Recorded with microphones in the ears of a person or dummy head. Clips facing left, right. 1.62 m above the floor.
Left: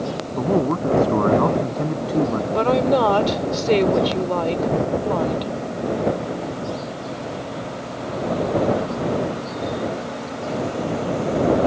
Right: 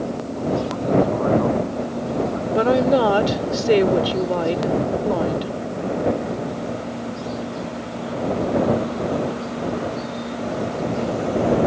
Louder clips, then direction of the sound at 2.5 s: Right 2 dB; 15° right (ahead or behind).